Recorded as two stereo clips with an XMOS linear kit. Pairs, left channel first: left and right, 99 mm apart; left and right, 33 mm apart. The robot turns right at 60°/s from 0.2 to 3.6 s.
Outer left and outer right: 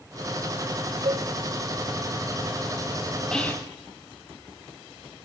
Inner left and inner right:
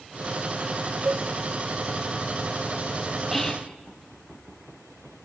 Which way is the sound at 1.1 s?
75° right (ahead or behind).